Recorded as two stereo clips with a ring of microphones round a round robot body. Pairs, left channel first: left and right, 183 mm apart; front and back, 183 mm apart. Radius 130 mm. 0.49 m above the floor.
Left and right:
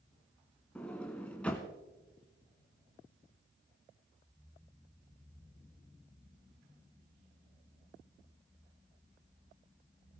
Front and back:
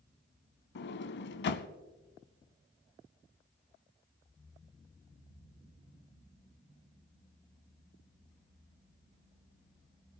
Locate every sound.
0.8 s a sliding door: 5° left, 0.6 m